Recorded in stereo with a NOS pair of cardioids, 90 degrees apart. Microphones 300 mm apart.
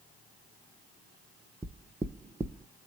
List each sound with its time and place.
1.6 s knocking: 10° right, 0.5 m